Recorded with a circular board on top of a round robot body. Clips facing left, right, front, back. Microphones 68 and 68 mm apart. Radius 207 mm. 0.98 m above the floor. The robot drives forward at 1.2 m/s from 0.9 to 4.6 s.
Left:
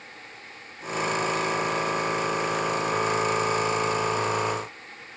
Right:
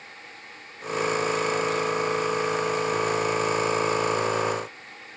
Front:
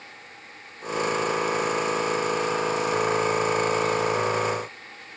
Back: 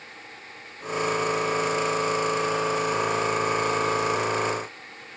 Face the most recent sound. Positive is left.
No sound to turn to.